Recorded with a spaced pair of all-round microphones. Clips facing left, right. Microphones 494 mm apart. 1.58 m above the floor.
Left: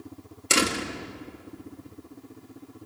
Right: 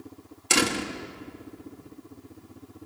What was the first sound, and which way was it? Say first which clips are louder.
A door slam: right 1 dB; 5° right (ahead or behind).